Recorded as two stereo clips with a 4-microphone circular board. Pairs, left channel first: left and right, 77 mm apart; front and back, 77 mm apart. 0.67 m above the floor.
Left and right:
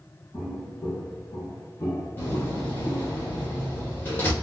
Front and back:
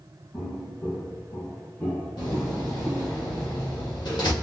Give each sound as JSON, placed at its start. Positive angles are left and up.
{"t": 0.3, "sound": "footsteps", "azimuth_deg": 40, "distance_m": 1.6}
{"t": 2.2, "sound": "a door slam", "azimuth_deg": 25, "distance_m": 1.4}